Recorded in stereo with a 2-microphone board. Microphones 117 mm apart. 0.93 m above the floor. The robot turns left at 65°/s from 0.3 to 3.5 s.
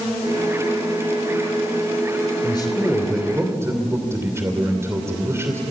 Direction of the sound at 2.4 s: 45° left.